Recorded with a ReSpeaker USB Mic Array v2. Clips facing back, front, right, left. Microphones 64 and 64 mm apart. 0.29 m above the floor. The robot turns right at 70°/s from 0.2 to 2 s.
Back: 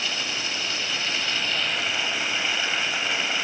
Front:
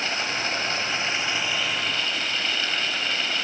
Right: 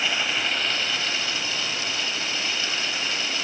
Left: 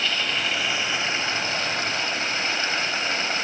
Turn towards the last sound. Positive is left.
turn(degrees=105)